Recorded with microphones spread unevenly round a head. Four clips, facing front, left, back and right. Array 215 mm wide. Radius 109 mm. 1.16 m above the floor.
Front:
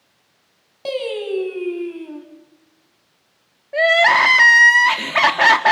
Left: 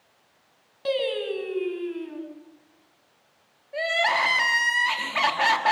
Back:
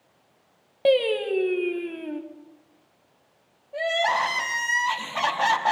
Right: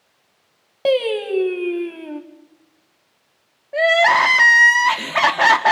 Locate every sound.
0.8 s singing: 130° right, 1.6 m
3.7 s crying: 40° right, 1.7 m